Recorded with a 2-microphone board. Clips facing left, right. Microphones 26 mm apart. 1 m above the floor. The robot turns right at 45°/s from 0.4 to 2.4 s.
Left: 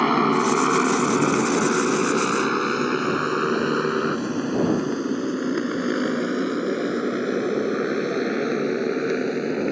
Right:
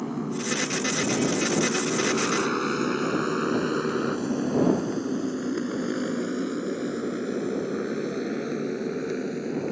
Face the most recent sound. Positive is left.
turn(degrees=40)  # may be behind; listen again after turning